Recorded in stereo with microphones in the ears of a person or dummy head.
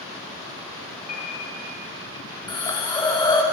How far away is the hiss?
About 0.8 m.